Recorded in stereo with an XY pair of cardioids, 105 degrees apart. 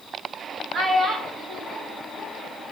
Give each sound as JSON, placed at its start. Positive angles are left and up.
{"t": 0.7, "sound": "a child speaking", "azimuth_deg": -45, "distance_m": 1.1}